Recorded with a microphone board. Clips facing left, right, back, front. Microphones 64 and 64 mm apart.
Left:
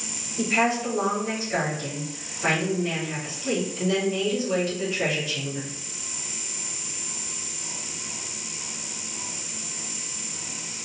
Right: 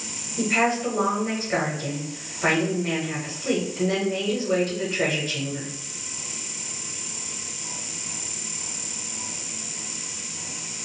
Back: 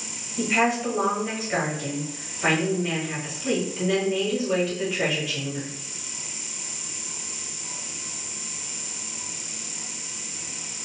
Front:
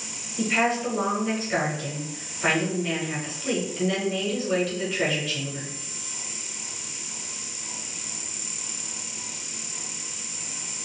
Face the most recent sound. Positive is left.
turn(degrees=-100)